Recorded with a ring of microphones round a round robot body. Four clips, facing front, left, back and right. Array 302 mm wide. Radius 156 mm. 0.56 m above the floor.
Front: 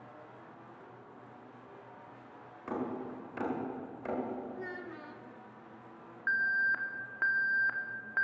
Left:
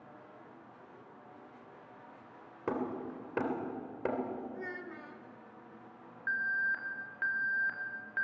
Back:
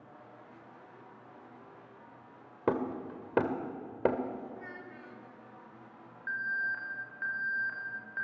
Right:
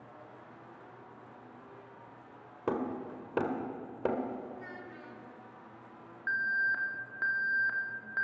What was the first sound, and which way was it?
Hammering, 170° right.